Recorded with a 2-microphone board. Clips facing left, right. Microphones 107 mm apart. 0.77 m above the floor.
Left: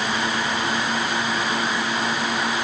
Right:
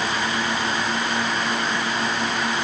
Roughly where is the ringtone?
No ringtone in this recording.